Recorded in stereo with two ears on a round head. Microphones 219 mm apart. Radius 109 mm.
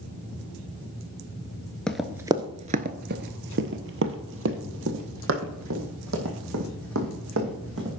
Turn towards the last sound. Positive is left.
turn(degrees=-60)  # may be behind; listen again after turning